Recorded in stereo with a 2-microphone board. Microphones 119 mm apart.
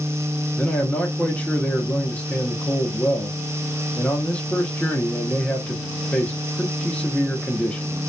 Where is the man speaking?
15° left (ahead or behind), 0.6 m.